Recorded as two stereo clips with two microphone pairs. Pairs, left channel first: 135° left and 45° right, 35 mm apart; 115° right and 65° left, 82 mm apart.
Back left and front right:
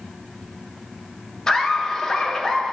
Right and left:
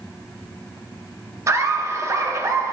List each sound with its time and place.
1.5 s laughter: 75° left, 0.6 m